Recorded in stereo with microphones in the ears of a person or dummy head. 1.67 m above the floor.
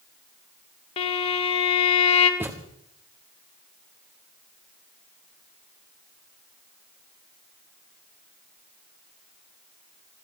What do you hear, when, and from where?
1.0 s a violin: 35° left (ahead or behind), 1.7 m
2.4 s a thud: 15° right (ahead or behind), 1.4 m